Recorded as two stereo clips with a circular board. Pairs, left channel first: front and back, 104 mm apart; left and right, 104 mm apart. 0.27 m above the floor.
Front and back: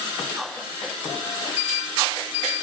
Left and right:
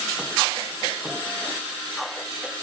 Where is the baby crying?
I don't hear a baby crying.